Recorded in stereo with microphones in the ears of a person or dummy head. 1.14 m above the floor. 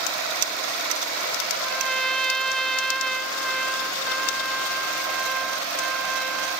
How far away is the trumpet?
About 0.8 m.